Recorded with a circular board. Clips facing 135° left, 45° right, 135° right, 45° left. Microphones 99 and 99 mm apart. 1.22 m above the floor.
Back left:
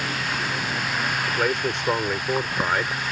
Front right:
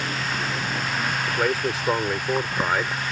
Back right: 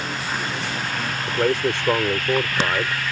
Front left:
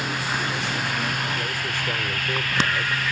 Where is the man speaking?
135° right.